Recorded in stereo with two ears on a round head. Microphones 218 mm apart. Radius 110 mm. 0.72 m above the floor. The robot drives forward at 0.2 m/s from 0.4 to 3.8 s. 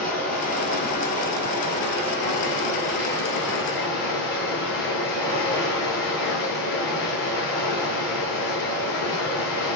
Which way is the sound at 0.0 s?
35° left (ahead or behind).